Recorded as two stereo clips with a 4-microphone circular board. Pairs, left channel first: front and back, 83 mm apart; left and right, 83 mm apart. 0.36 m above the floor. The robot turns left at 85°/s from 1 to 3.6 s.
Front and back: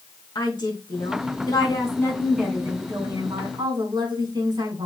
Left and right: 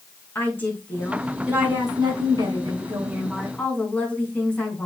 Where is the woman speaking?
25° left, 4 m; by 4.9 s 160° left, 4 m.